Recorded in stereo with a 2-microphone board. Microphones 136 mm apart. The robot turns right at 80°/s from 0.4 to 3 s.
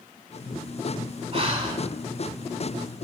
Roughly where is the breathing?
Right.